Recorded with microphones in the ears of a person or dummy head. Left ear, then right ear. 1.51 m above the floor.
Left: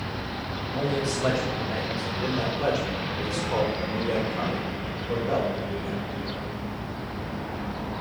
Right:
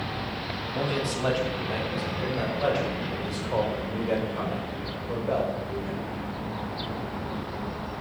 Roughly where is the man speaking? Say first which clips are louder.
Left 2 dB; centre.